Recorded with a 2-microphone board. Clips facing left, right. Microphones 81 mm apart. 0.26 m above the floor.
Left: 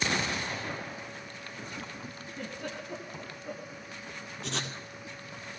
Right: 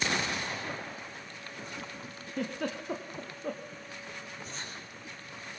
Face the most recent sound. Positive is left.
turn(degrees=75)  # may be behind; listen again after turning